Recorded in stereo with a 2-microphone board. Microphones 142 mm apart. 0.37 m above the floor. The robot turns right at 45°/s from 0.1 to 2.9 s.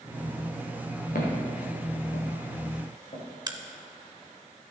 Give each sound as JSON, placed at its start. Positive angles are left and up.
{"t": 1.1, "sound": "footsteps", "side_deg": 80, "distance_m": 3.5}
{"t": 3.5, "sound": "a crack", "side_deg": -30, "distance_m": 0.7}